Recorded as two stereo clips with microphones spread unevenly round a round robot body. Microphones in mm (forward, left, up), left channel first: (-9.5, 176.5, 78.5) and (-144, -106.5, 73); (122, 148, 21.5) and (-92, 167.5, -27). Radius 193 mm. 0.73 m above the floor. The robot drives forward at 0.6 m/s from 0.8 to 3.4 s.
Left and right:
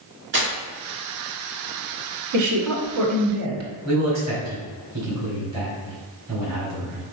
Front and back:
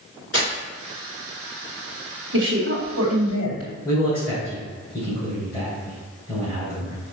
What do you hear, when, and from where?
0.3 s tearing paper: 65° right, 2 m
2.3 s a woman speaking: 140° right, 1.9 m; by 3.7 s 150° right, 2.5 m
3.9 s a man speaking: 75° right, 2 m